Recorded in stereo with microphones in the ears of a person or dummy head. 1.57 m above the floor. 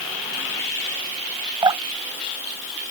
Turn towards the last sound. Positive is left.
turn(degrees=-25)  # may be behind; listen again after turning